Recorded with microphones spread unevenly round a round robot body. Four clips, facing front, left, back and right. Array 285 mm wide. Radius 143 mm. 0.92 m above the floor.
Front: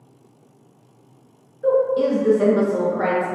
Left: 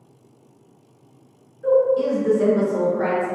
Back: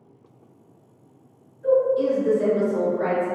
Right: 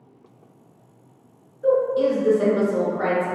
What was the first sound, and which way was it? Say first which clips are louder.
A woman speaking: left 2 dB, front 1 dB; 25° right.